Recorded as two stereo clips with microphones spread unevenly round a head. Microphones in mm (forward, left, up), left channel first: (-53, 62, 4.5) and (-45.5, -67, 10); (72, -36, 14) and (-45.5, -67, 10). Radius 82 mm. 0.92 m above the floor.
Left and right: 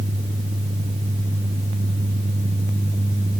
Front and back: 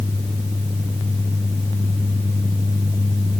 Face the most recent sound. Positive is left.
No sound to turn to.